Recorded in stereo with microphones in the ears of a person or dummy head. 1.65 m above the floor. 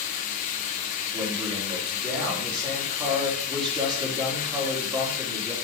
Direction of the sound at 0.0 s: 40° left (ahead or behind).